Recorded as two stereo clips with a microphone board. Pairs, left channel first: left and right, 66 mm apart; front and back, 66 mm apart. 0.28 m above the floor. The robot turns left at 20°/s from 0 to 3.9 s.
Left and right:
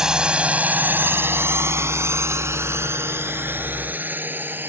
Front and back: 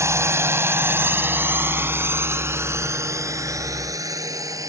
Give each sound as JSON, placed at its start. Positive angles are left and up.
{"t": 0.0, "sound": "a drone", "azimuth_deg": -165}